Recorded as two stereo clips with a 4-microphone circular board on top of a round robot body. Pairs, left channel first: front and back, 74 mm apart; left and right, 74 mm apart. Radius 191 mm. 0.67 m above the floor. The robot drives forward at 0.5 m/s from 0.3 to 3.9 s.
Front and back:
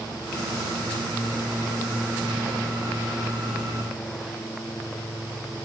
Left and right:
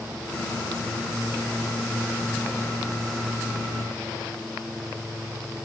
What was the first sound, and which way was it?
Only background noise.